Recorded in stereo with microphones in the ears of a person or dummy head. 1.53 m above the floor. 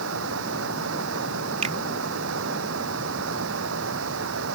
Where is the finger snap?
40° right (ahead or behind).